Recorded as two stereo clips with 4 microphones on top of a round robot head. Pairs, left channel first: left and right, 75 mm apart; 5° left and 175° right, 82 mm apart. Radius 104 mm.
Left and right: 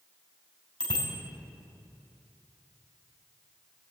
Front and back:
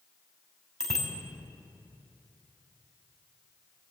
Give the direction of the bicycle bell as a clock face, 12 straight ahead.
9 o'clock.